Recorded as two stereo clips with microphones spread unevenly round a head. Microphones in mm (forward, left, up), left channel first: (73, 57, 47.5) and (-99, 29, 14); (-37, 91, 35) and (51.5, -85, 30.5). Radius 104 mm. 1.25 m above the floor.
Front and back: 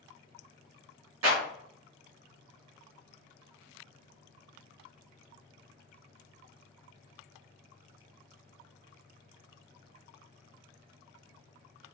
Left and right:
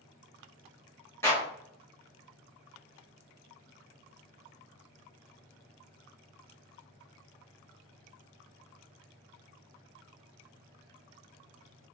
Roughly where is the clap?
Behind.